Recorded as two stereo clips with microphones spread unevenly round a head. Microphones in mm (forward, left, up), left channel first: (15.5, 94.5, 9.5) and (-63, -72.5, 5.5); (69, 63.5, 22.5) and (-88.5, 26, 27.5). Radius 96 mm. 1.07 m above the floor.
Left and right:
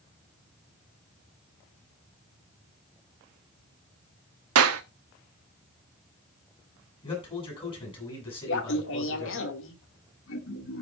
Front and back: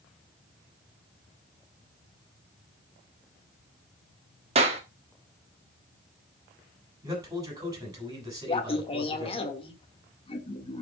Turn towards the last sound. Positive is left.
turn(degrees=65)